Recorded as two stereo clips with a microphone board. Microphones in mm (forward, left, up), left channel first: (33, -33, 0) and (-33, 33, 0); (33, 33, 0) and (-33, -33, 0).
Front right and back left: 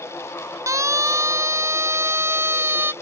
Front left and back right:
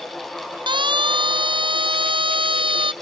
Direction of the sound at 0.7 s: 170° right.